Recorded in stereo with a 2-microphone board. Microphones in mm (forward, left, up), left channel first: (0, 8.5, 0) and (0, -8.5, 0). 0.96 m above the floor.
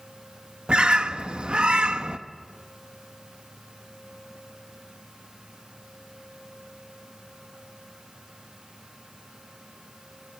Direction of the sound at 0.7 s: 65° right (ahead or behind).